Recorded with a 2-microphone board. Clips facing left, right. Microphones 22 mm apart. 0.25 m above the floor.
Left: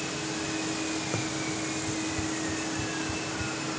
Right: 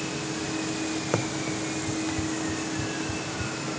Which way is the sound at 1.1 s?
40° right (ahead or behind).